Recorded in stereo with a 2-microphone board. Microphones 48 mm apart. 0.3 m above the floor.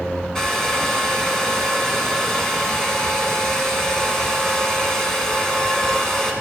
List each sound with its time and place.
0.3 s a hair dryer: 10° left (ahead or behind), 2 m